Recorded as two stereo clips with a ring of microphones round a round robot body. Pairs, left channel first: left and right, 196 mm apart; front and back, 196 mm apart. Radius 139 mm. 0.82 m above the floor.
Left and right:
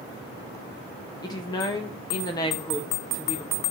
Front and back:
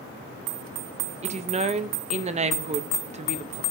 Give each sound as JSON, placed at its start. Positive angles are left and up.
{"t": 1.2, "sound": "a woman speaking", "azimuth_deg": 150, "distance_m": 0.5}